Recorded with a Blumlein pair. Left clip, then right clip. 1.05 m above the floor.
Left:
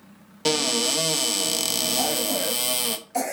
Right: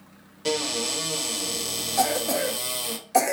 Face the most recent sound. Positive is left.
turn(degrees=-30)